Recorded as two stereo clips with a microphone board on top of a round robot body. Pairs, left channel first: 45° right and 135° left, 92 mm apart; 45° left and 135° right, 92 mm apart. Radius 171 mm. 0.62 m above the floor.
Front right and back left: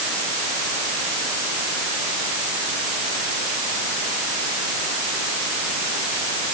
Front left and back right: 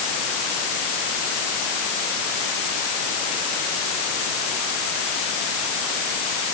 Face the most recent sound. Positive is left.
No sound to turn to.